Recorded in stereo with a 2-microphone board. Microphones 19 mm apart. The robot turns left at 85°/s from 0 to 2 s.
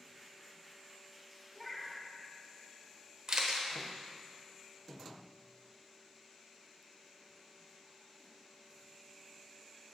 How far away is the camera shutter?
About 0.9 m.